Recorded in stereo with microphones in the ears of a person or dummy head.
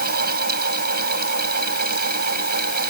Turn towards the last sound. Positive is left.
turn(degrees=-55)  # may be behind; listen again after turning